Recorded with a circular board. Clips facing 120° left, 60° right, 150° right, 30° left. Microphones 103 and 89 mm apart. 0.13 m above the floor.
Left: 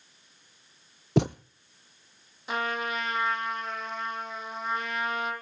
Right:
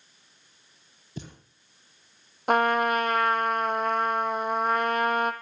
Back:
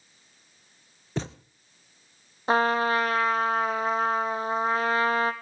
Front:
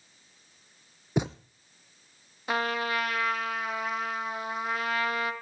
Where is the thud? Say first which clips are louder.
Left 17 dB, front 4 dB; 105° left, 0.8 m.